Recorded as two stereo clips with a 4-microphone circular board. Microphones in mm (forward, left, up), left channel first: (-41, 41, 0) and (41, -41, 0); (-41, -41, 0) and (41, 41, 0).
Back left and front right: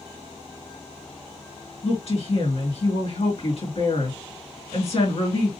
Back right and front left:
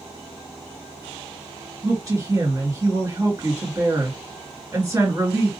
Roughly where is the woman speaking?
Left.